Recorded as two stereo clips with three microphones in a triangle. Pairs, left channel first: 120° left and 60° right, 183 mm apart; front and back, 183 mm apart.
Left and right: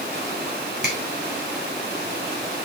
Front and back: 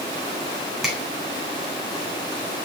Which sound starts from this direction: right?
A finger snap, at 0.8 s.